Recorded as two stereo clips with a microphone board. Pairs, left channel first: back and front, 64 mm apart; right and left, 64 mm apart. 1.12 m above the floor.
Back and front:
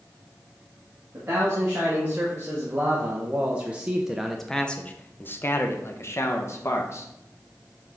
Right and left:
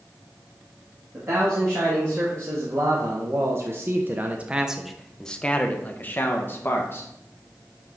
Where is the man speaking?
50° left, 1.9 m; by 7.1 s 140° right, 1.4 m.